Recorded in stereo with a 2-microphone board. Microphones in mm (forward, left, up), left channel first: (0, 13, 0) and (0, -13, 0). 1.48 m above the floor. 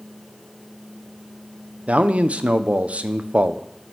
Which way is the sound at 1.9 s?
55° right (ahead or behind).